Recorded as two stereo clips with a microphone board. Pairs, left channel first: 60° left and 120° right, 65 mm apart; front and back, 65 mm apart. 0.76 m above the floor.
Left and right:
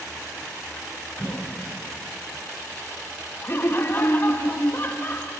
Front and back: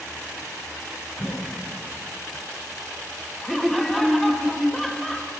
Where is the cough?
55° right, 3 m.